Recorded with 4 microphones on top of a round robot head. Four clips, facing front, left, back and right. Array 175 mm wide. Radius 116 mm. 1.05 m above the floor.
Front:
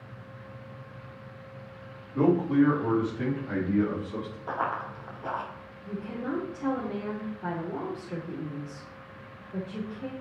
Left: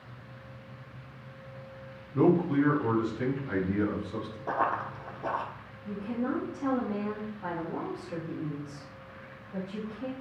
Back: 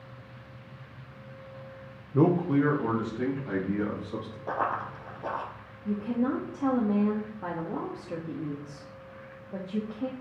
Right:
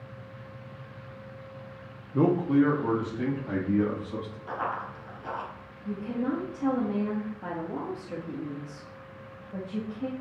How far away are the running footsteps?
About 1.3 m.